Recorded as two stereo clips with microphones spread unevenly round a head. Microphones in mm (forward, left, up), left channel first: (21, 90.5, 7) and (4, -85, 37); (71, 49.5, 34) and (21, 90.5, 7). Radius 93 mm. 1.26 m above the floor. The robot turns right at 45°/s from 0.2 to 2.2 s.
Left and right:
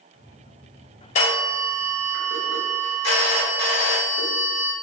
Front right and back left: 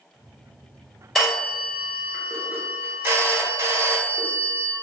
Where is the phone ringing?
30° left, 0.9 m; by 4.7 s 75° left, 0.9 m.